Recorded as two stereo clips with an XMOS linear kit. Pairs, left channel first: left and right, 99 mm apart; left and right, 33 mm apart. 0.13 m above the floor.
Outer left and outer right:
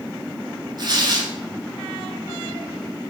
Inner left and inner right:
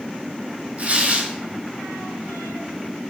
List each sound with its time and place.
0.8 s tearing paper: 45° right (ahead or behind), 0.7 m